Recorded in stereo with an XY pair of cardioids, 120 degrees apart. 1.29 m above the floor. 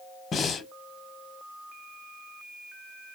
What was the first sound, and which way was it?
Breathing, 40° left.